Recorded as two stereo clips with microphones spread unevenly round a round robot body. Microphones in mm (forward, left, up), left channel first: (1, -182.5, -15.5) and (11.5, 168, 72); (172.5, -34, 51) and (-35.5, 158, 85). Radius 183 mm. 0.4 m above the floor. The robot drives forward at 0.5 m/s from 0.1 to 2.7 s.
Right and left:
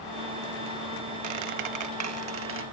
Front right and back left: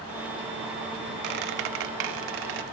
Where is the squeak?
115° left; by 2.6 s 145° left.